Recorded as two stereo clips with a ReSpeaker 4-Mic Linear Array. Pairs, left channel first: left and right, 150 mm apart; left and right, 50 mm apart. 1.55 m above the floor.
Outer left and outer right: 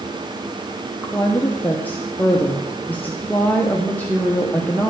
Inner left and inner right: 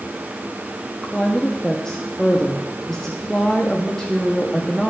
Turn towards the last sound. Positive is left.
turn(degrees=10)  # may be behind; listen again after turning